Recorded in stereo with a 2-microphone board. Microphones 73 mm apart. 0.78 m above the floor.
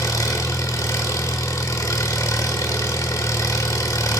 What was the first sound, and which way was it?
An engine running, 50° left (ahead or behind).